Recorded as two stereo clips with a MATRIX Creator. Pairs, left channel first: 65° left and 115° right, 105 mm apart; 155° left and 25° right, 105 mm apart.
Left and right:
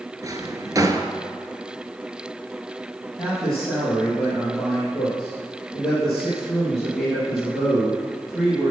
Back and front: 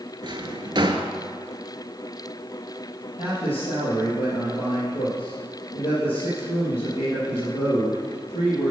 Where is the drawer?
60° right, 0.8 m.